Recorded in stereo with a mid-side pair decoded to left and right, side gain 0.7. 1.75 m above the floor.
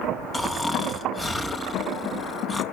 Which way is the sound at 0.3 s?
15° left.